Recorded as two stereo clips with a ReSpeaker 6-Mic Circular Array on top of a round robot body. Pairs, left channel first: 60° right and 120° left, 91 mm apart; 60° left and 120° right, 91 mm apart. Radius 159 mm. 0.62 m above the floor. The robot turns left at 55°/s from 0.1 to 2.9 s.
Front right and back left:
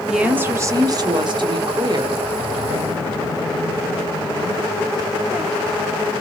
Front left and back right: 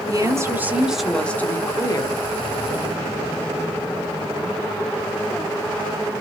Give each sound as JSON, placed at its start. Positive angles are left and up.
{"t": 0.1, "sound": "a woman speaking", "azimuth_deg": -160, "distance_m": 1.0}